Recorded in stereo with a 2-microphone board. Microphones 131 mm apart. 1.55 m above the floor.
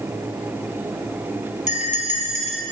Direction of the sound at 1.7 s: 65° left (ahead or behind).